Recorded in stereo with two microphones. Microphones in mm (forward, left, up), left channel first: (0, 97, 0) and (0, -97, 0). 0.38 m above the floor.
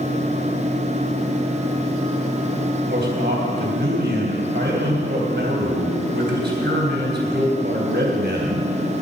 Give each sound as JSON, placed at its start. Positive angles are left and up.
{"t": 2.9, "sound": "a man speaking", "side_deg": -60, "distance_m": 3.0}